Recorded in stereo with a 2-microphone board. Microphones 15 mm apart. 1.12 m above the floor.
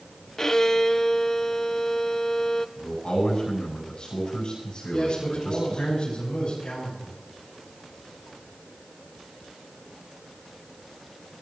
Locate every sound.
0.4 s a violin: 30° left (ahead or behind), 0.6 m
2.8 s a man speaking: 65° left (ahead or behind), 9.5 m
4.9 s a man speaking: 75° left (ahead or behind), 6.5 m